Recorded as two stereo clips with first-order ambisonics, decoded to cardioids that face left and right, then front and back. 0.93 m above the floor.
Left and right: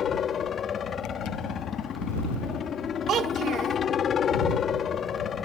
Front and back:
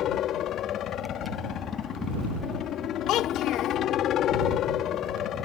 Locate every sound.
0.0 s a helicopter: 35° left
3.1 s a child speaking: 40° right